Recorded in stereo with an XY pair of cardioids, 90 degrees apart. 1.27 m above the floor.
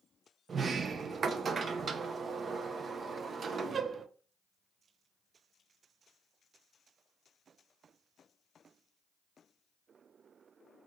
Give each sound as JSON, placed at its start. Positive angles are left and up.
{"t": 0.5, "sound": "a sliding door", "azimuth_deg": -50, "distance_m": 0.5}